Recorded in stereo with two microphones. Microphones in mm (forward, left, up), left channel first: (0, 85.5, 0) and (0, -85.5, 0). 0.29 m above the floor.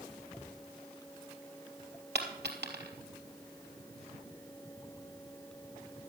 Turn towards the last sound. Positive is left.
turn(degrees=-80)